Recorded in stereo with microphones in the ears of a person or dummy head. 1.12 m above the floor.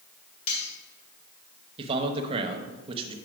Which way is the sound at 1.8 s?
35° right (ahead or behind).